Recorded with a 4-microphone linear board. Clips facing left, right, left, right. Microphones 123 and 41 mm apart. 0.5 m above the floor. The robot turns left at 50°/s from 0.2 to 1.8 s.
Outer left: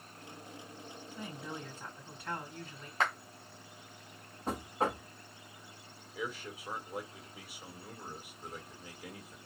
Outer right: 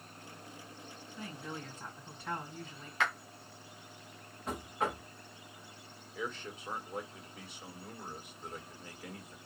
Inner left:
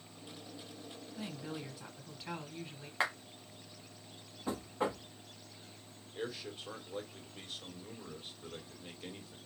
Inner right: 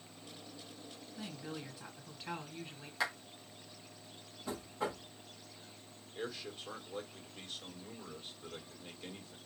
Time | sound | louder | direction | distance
1.2 | a woman speaking | even, inner left 2 dB | 30° left | 1.9 m
3.0 | a clap | outer left 1 dB, inner left 2 dB | 40° left (ahead or behind) | 1.9 m
4.5 | knocking | outer left 2 dB, inner left 3 dB | 35° left (ahead or behind) | 1.2 m
6.2 | a man speaking | even, inner left 1 dB | 5° left (ahead or behind) | 1.6 m